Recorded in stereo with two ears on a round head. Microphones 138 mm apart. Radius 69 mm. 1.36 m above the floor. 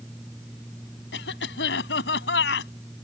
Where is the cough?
85° left.